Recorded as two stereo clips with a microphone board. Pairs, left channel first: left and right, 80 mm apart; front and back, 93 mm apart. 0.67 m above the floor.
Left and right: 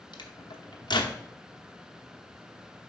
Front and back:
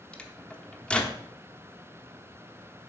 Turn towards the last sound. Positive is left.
turn(degrees=75)